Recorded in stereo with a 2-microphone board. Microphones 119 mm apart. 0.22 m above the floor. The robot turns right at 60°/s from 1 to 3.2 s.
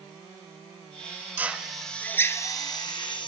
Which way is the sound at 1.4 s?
15° right (ahead or behind).